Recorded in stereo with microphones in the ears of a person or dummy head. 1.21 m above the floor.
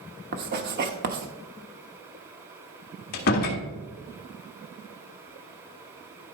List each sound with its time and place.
0.3 s writing: 45° right (ahead or behind), 1.0 m
3.1 s a door slam: 50° left (ahead or behind), 1.4 m